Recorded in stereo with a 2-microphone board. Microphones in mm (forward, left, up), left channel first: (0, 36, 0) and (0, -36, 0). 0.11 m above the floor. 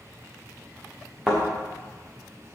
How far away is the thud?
About 4.5 m.